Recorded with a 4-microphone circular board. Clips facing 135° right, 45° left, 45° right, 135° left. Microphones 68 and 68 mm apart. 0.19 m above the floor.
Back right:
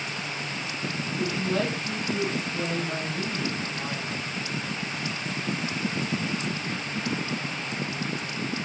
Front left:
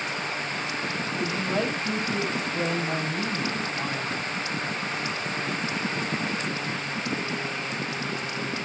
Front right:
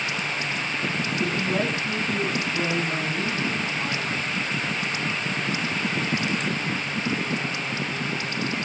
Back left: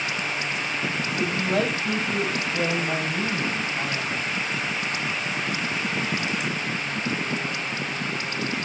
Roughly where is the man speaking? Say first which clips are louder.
Back right 1 dB, back left 2 dB; left.